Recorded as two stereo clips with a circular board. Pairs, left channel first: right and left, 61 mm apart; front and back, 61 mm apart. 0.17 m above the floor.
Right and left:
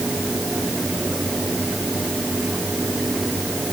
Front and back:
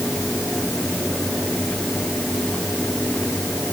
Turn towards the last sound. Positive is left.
No sound to turn to.